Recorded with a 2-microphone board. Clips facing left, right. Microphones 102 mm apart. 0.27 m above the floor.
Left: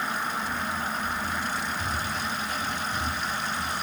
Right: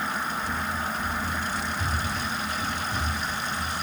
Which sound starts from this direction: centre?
Running footsteps, at 0.4 s.